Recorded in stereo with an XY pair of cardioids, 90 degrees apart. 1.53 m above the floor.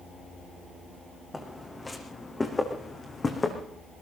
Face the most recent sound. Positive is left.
turn(degrees=30)